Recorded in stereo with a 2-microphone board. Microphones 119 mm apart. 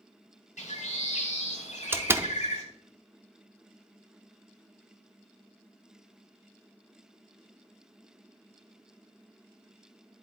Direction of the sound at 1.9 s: 20° right (ahead or behind).